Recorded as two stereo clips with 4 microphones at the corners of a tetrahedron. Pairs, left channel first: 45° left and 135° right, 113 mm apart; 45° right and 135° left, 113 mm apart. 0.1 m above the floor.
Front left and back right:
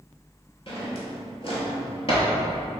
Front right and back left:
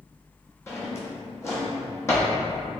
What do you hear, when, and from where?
0.7 s a drawer: 15° left, 0.9 m